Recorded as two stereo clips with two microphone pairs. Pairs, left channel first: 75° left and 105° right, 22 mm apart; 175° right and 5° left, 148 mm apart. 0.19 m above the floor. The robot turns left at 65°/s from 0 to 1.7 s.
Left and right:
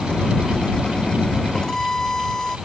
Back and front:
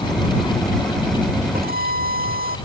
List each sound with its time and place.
1.5 s a violin: 20° left; by 2.6 s 10° left